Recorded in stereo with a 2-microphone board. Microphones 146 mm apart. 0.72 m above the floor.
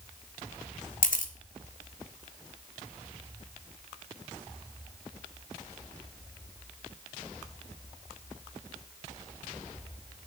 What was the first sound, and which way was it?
A camera shutter, 65° left (ahead or behind).